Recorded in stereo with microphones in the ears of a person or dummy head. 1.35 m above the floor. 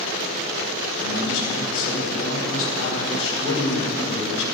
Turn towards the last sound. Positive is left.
turn(degrees=80)